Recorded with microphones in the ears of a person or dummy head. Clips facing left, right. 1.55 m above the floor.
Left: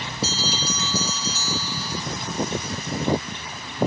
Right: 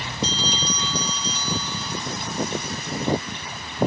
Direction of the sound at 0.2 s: 5° left (ahead or behind).